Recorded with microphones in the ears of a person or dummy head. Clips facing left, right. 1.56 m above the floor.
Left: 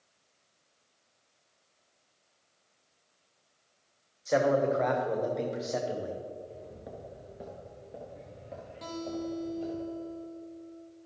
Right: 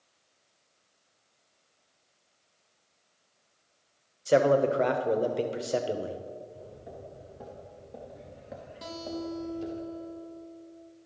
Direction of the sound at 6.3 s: 35° left (ahead or behind).